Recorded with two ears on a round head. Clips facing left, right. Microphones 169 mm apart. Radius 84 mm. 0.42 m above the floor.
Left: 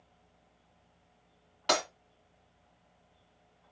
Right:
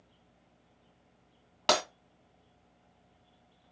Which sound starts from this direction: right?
Breaking glass, at 1.7 s.